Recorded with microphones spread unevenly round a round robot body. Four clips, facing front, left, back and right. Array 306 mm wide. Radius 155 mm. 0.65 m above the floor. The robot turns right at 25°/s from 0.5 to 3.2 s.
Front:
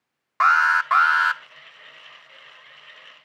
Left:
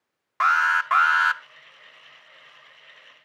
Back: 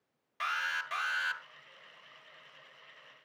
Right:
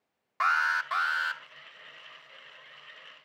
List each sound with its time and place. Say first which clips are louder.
0.4 s an alarm: left 6 dB, front 18 dB; 25° left, 0.9 m; by 1.4 s 50° left, 0.9 m